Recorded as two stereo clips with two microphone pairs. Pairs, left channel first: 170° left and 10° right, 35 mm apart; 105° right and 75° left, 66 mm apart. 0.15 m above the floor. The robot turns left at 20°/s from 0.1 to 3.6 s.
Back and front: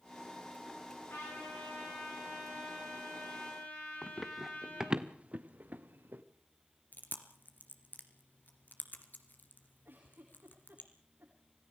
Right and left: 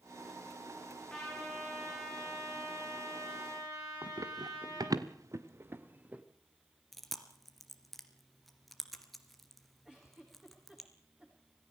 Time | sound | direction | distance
1.1 | a trumpet | 175° left | 10 m
4.0 | running footsteps | 90° left | 1.9 m
6.9 | chewing | 170° left | 2.5 m
9.8 | a giggle | straight ahead | 8.5 m